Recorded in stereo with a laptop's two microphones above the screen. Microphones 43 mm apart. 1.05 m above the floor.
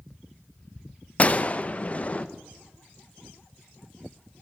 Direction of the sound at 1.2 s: 30° left (ahead or behind).